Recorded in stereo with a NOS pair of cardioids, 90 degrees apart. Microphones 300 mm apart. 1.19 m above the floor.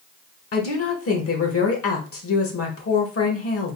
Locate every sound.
0.5 s a woman speaking: 50° left, 1.8 m